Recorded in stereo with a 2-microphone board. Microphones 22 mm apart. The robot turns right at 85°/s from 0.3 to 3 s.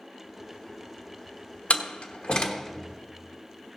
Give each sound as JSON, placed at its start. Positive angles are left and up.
{"t": 1.7, "sound": "a door slam", "side_deg": 65, "distance_m": 1.2}